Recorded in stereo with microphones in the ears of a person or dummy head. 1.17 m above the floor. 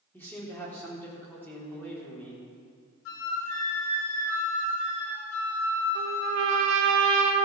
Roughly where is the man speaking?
Centre.